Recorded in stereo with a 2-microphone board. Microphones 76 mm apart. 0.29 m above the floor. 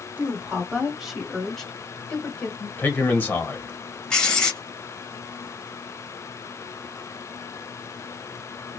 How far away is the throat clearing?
I don't hear throat clearing.